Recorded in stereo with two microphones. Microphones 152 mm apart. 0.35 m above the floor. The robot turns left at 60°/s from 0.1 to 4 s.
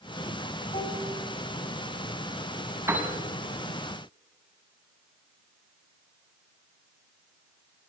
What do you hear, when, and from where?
0.7 s dishes clattering: 40° left (ahead or behind), 2 m; by 1.1 s 60° left (ahead or behind), 2 m
2.9 s a piano: 15° right (ahead or behind), 2.5 m; by 3.1 s 5° right (ahead or behind), 2.5 m